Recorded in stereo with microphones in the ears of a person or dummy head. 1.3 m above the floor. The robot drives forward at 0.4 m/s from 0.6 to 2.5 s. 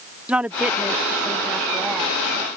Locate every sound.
0.3 s a woman speaking: 5° right (ahead or behind); by 2.1 s 10° right (ahead or behind)